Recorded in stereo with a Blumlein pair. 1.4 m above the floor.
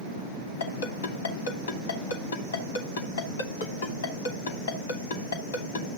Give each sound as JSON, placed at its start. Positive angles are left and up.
{"t": 0.6, "sound": "a ringtone", "azimuth_deg": 65, "distance_m": 2.5}